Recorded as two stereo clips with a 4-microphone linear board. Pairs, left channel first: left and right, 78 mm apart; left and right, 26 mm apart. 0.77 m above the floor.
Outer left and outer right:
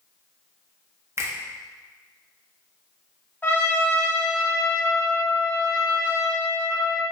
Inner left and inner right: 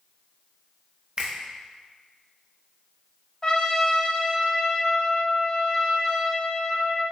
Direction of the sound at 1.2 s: 35° right (ahead or behind).